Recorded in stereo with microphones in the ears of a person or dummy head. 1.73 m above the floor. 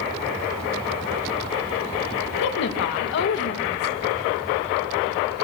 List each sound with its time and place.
2.4 s a woman speaking: 60° left (ahead or behind), 2.5 m